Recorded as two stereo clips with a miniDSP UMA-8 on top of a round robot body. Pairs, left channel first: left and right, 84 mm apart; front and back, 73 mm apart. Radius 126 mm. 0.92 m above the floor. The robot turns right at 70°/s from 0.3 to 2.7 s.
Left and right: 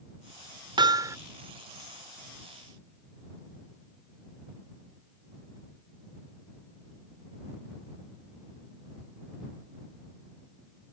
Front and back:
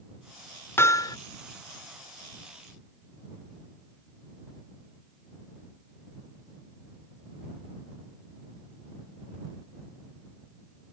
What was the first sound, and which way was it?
Hammering, 60° right.